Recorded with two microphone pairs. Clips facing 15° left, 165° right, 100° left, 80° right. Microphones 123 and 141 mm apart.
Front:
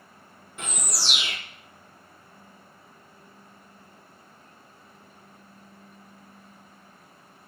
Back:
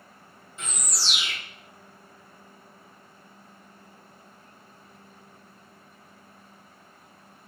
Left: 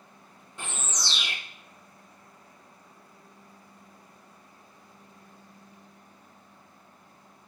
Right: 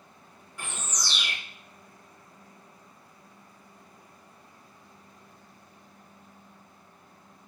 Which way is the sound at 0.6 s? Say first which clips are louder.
Front 3 dB, left 1 dB; 35° left.